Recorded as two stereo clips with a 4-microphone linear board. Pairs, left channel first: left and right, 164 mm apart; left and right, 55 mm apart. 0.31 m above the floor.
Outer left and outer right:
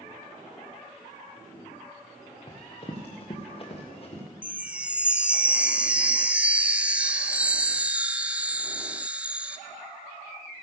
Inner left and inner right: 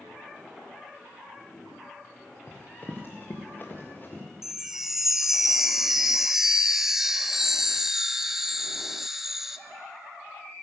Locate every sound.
2.5 s running footsteps: 35° left (ahead or behind), 2.0 m; by 4.2 s 40° left (ahead or behind), 3 m
4.4 s a chime: 10° right (ahead or behind), 0.5 m